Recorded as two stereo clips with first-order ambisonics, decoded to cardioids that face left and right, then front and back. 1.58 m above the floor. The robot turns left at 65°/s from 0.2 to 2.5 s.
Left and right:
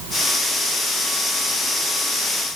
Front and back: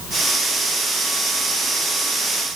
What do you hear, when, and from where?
Only background noise.